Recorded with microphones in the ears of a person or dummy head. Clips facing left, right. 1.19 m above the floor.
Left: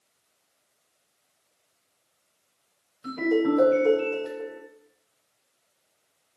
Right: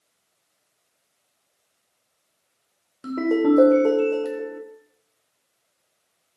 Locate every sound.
3.0 s a ringtone: 60° right (ahead or behind), 1.3 m